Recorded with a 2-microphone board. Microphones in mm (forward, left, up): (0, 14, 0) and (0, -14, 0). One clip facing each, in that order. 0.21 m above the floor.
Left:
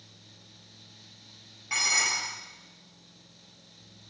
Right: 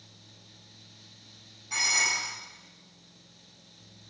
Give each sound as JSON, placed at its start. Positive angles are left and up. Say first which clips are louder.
{"t": 1.7, "sound": "dishes clattering", "louder": "even", "side_deg": 50, "distance_m": 3.5}